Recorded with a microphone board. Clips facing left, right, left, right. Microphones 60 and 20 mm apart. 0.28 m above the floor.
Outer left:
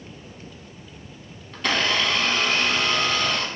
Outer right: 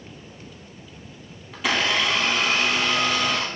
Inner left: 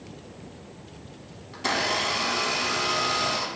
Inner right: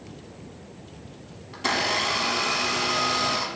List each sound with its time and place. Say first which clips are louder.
1.5 s a blender: even, inner right 1 dB; 5° right (ahead or behind), 0.5 m